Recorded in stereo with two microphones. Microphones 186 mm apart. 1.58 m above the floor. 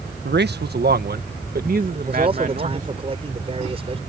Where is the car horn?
No car horn in this recording.